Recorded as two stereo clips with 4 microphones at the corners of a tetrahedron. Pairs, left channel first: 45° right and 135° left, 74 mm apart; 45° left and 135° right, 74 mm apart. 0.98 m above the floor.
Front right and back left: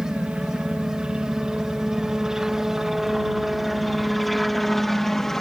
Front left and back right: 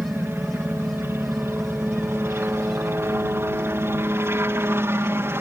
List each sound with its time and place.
0.0 s a helicopter: 160° right; by 5.4 s 125° right